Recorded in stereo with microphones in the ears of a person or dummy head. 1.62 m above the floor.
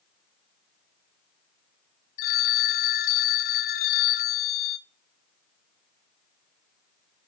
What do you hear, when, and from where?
2.2 s a phone ringing: 35° left (ahead or behind), 0.6 m